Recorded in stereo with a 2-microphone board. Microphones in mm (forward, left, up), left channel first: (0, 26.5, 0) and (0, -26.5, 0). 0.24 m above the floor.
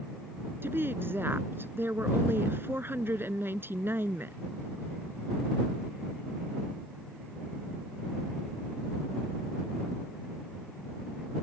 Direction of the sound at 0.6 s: 45° right (ahead or behind).